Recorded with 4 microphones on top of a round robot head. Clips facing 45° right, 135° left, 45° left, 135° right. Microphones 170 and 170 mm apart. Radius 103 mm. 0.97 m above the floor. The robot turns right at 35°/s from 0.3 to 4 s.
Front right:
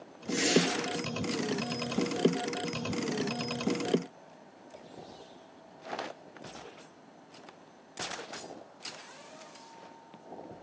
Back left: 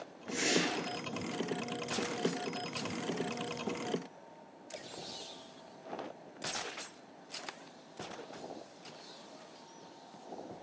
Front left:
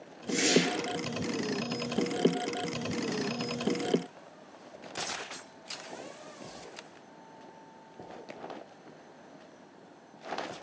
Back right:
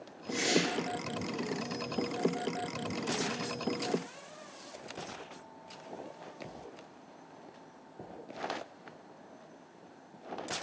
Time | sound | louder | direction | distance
0.3 | a whoosh | front right 6 dB, front left 4 dB | 5° left | 0.5 m